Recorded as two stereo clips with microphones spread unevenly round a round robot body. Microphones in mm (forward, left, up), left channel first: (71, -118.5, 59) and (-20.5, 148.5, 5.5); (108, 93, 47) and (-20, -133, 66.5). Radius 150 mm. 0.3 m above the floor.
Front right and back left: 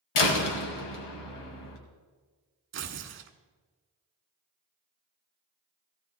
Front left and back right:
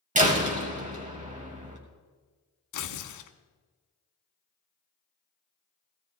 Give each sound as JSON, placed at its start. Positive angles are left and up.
{"t": 0.1, "sound": "a door slam", "azimuth_deg": -60, "distance_m": 2.0}
{"t": 2.7, "sound": "tearing paper", "azimuth_deg": 60, "distance_m": 1.1}